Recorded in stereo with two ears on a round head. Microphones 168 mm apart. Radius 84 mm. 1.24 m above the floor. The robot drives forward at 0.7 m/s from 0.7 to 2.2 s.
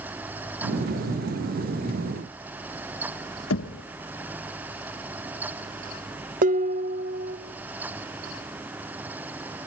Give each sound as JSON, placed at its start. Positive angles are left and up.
{"t": 3.5, "sound": "knocking", "side_deg": 75, "distance_m": 1.4}
{"t": 6.4, "sound": "dishes clattering", "side_deg": -45, "distance_m": 1.6}